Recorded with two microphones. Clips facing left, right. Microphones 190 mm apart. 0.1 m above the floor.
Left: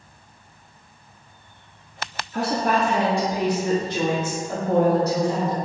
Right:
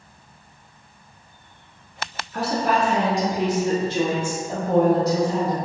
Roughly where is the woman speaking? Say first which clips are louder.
Even; centre.